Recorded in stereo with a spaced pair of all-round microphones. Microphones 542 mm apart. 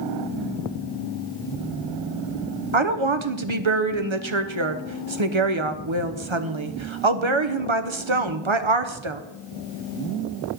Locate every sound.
2.7 s a woman speaking: 60° right (ahead or behind), 1.0 m